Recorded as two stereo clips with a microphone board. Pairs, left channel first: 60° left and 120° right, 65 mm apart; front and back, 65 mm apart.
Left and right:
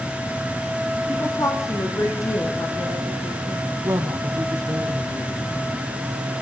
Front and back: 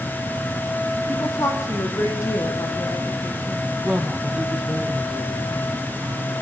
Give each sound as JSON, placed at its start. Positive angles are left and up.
{"t": 1.1, "sound": "a woman speaking", "azimuth_deg": 35, "distance_m": 5.5}
{"t": 3.8, "sound": "a woman speaking", "azimuth_deg": -110, "distance_m": 2.5}